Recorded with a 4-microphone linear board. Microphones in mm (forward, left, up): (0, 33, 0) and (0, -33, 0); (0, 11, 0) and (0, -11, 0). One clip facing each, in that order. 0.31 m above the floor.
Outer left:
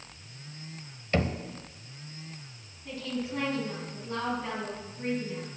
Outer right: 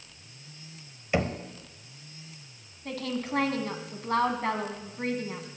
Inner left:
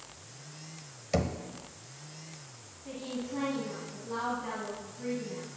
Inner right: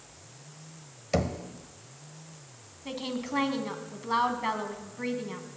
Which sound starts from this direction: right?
A woman speaking, at 2.9 s.